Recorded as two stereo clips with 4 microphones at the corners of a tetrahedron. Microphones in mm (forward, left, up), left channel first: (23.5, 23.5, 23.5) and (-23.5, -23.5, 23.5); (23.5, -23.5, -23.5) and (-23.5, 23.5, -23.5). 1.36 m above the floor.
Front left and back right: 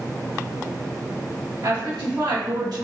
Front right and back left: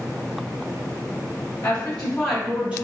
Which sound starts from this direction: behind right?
A woman speaking, at 1.6 s.